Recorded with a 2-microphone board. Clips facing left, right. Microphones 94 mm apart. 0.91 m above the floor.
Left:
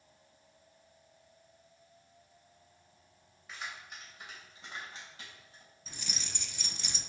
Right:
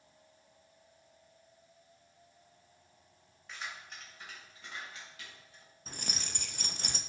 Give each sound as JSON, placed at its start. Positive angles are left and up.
{"t": 3.5, "sound": "keys jangling", "side_deg": 5, "distance_m": 3.0}
{"t": 5.9, "sound": "keys jangling", "side_deg": -50, "distance_m": 0.5}